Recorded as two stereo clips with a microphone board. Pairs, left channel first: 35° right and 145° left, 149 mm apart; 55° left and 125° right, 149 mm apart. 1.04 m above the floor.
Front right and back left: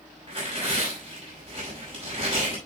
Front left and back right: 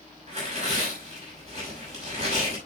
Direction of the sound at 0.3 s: 165° right.